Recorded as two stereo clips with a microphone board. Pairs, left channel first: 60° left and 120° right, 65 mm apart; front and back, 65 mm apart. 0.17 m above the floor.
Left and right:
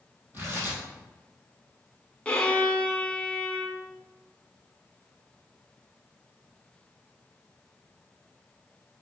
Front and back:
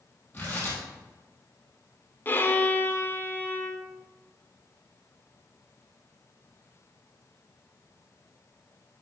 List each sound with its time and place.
0.3 s tearing paper: 60° right, 3 m
2.2 s a violin: 5° left, 0.7 m